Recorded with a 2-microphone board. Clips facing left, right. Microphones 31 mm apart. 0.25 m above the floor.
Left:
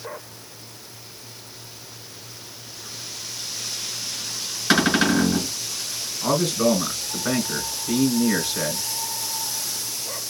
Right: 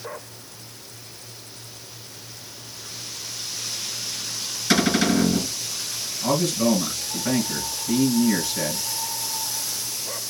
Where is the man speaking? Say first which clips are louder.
Left 1 dB; 40° left (ahead or behind), 3 m.